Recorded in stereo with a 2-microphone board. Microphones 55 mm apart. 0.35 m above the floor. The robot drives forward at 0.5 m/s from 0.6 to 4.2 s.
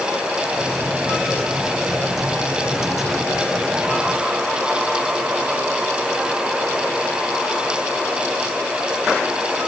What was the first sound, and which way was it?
Only background noise.